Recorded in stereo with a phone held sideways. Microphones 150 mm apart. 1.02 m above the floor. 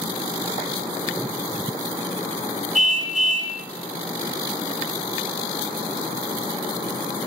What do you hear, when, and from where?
2.8 s a car horn: 55° right (ahead or behind), 3 m